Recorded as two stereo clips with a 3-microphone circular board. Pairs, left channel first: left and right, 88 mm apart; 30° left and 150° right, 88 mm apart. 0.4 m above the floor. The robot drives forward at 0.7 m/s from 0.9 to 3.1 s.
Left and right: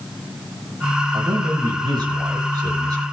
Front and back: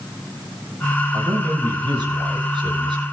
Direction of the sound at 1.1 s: 110° right.